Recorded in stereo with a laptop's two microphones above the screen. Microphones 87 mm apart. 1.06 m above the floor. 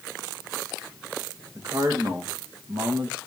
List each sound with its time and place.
1.6 s a man speaking: 45° right (ahead or behind), 1.2 m; by 3.2 s 65° right (ahead or behind), 1.8 m